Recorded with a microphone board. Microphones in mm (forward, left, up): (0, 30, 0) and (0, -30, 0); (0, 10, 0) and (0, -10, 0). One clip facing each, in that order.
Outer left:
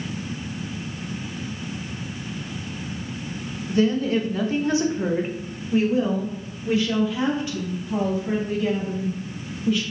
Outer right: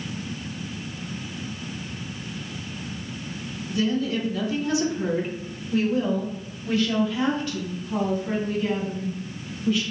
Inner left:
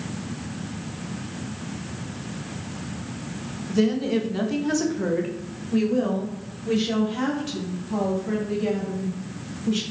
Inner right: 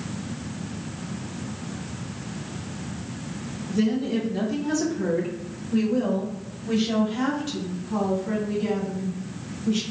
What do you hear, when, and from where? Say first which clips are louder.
3.7 s a woman speaking: outer left 4 dB, inner left 2 dB; 35° left (ahead or behind), 0.9 m; by 9.8 s 10° left (ahead or behind), 3.5 m